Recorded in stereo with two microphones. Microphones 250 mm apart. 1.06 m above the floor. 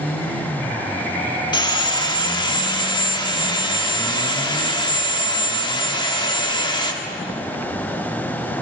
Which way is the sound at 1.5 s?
20° left (ahead or behind).